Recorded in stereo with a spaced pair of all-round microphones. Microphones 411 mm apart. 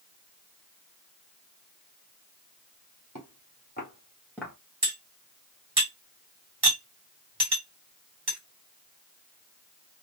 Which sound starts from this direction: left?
Footsteps, at 3.1 s.